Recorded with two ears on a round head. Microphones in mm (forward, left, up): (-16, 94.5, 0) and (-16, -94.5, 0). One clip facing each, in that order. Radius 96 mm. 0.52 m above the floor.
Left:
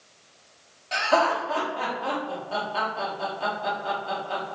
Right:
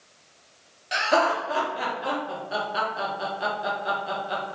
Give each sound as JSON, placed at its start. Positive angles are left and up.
{"t": 0.9, "sound": "laughter", "side_deg": -15, "distance_m": 0.7}